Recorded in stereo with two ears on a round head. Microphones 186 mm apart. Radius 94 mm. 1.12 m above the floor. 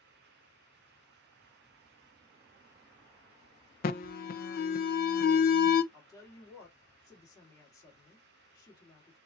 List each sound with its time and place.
3.8 s an alarm: 45° left (ahead or behind), 0.6 m
5.9 s a woman speaking: 15° left (ahead or behind), 1.9 m